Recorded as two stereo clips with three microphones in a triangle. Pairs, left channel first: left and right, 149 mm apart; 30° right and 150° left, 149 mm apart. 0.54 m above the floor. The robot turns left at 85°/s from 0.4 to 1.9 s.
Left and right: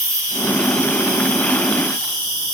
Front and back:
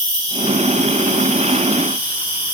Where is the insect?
155° right, 2.5 m; by 2.5 s 75° left, 2.5 m.